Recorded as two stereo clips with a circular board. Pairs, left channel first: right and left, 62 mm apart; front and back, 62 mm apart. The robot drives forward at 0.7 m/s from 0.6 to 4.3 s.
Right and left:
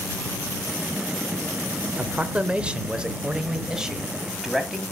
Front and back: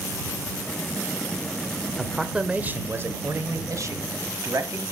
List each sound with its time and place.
2.0 s a man speaking: 80° left, 0.9 m; by 4.8 s 170° left, 1.8 m